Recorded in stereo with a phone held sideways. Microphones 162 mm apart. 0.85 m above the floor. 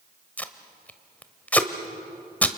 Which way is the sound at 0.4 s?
10° left (ahead or behind).